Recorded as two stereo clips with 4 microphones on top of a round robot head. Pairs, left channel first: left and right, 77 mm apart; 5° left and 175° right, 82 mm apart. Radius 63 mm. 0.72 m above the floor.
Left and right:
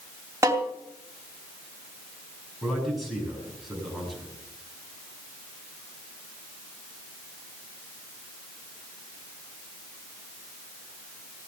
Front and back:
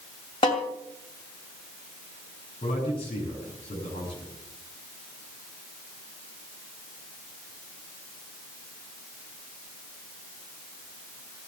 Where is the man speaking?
Straight ahead, 8.5 m.